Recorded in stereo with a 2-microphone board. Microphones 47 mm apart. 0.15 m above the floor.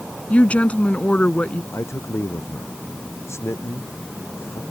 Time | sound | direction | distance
0.3 | a woman speaking | 30° left (ahead or behind) | ?
1.7 | a man speaking | 75° left (ahead or behind) | ?